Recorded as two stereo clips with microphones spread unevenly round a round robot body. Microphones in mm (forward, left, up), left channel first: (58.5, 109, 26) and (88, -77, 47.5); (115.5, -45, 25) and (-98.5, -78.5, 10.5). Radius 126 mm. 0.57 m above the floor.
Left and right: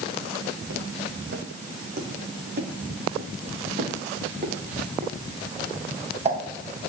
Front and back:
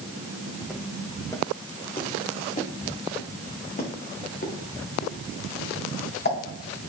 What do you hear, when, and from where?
0.6 s footsteps: 80° right, 1.5 m; by 6.4 s 25° right, 4 m